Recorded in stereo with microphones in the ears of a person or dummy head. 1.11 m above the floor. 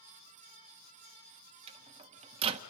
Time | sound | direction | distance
1.7 | a microwave | 35° right (ahead or behind) | 0.9 m